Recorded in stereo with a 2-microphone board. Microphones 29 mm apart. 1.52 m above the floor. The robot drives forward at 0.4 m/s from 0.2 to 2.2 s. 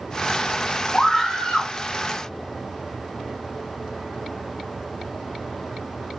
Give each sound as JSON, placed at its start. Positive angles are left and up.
{"t": 0.9, "sound": "a scream", "side_deg": 15, "distance_m": 0.9}